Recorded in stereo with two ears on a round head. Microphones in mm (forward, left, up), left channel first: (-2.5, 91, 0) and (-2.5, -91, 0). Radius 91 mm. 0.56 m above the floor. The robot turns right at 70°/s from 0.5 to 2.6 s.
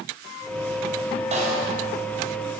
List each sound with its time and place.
1.3 s a snare drum: 35° right (ahead or behind), 3.5 m; by 1.7 s 60° right (ahead or behind), 3.5 m